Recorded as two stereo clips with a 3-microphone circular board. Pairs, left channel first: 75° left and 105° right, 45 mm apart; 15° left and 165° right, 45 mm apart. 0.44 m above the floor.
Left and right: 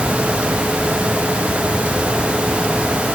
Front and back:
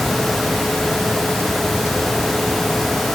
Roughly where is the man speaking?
No man speaking in this recording.